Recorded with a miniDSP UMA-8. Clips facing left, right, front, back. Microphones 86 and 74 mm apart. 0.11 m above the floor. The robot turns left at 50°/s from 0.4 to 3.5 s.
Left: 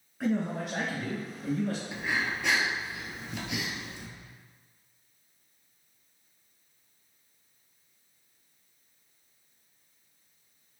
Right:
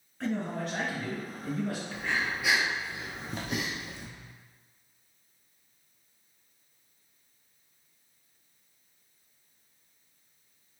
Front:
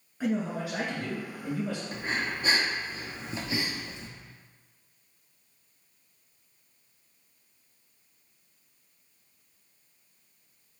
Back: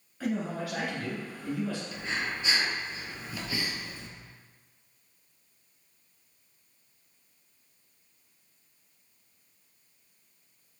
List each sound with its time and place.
0.2 s a man speaking: 25° left, 1.6 m; by 1.8 s 45° right, 1.6 m
1.9 s breathing: 20° left, 0.9 m; by 4.1 s 60° right, 0.9 m